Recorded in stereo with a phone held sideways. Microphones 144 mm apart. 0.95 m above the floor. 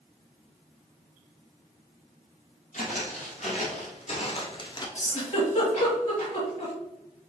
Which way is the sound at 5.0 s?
55° left (ahead or behind).